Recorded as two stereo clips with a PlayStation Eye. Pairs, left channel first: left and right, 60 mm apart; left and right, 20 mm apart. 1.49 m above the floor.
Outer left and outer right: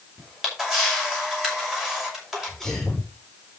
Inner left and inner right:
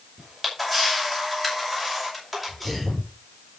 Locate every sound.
0.2 s a camera shutter: 10° right (ahead or behind), 6 m
2.3 s a sneeze: 5° left (ahead or behind), 6.5 m